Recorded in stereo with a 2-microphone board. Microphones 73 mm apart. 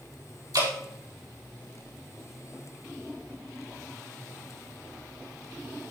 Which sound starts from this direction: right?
Dripping, at 0.5 s.